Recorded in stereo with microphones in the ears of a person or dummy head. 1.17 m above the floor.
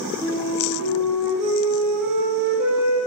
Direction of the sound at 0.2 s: 10° right (ahead or behind).